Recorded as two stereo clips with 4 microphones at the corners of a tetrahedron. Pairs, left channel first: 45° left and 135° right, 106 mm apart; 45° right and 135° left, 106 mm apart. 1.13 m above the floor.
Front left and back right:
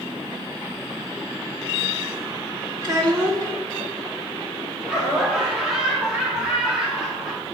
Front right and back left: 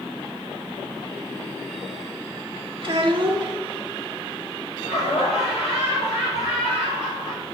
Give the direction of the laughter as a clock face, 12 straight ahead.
2 o'clock.